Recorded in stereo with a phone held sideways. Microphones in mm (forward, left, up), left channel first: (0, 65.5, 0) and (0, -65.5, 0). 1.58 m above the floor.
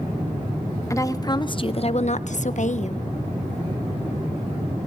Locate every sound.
0.9 s a woman speaking: 20° left (ahead or behind), 1.4 m; by 3.0 s 55° left (ahead or behind), 1.1 m